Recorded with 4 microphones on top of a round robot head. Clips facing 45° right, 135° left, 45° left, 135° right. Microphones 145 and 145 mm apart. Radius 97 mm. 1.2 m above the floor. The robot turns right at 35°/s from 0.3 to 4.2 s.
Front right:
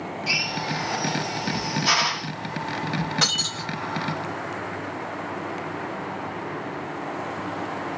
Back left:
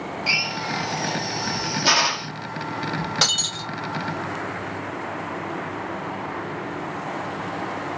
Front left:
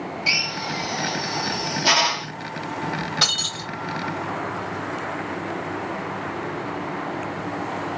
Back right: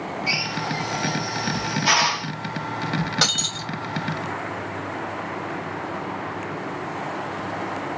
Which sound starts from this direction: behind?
Breaking glass, at 3.2 s.